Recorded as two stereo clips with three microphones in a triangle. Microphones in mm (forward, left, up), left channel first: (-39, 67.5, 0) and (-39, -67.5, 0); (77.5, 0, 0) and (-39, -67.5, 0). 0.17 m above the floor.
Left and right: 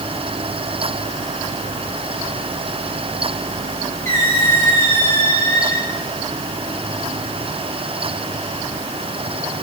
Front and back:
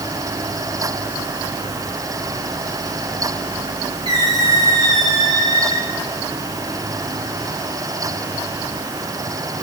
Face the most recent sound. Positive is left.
turn(degrees=160)